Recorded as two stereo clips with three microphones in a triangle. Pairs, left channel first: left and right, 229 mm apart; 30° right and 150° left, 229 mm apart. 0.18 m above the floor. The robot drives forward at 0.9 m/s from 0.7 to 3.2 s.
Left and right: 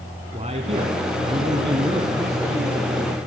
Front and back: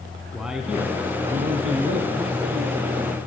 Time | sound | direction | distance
0.3 | a man speaking | 125° right | 1.2 m